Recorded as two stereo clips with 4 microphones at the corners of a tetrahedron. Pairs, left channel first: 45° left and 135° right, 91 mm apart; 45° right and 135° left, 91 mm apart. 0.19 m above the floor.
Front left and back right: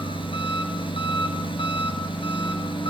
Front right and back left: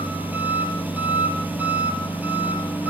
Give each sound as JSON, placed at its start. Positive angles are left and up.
{"t": 0.0, "sound": "an engine running", "azimuth_deg": 65, "distance_m": 3.0}